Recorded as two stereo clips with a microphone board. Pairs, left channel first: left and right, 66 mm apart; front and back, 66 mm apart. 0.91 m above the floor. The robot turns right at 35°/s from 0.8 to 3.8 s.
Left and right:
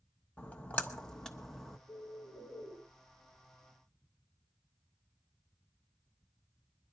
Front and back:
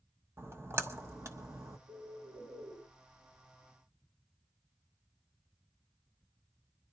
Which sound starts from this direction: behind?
A bird, at 1.9 s.